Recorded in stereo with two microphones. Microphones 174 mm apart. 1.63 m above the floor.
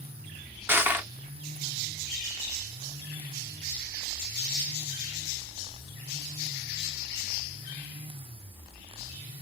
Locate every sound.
0.7 s crushing: 10° right (ahead or behind), 0.8 m